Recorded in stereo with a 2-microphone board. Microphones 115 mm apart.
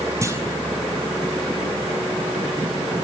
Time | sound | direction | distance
0.2 | a clunk | 25° right (ahead or behind) | 4.5 m